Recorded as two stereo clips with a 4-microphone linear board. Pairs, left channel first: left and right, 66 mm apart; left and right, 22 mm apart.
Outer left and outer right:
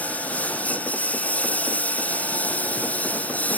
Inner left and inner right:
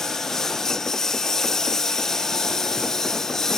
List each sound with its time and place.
0.0 s a lawn mower: 25° left (ahead or behind)